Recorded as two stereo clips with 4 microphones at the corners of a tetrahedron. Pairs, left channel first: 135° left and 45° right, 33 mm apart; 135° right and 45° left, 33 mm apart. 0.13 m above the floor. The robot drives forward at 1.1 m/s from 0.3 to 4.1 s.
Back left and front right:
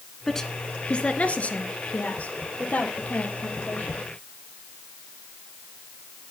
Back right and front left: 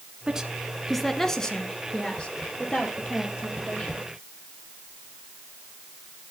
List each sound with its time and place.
0.3 s a woman speaking: 75° left, 1.1 m; by 4.0 s 175° left, 4 m